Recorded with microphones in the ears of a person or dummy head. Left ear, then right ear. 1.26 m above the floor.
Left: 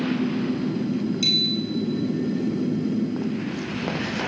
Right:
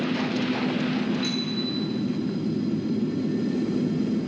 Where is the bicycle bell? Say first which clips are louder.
Left 7 dB; 90° left, 9.5 m.